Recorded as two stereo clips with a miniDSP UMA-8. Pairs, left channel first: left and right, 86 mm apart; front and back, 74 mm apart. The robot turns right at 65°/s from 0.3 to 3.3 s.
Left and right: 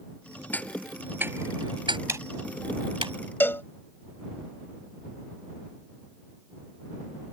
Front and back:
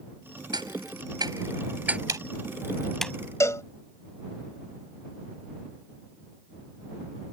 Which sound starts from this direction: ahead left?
A cowbell, at 3.4 s.